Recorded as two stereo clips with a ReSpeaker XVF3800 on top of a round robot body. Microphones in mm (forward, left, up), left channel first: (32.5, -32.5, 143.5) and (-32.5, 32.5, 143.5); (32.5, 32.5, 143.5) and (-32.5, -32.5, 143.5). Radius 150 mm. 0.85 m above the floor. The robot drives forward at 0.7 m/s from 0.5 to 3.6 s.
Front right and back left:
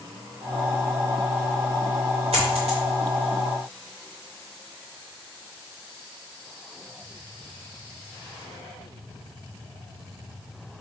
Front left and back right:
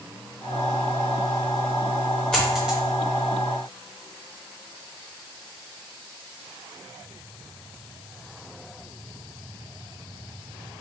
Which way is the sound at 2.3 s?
125° left.